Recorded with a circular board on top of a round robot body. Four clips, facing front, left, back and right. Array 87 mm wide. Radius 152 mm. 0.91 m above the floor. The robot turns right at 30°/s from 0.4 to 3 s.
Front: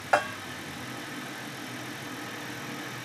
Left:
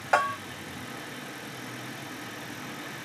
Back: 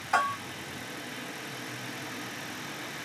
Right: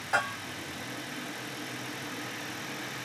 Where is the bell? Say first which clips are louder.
Left 5 dB, front 1 dB; 40° left, 1.2 m.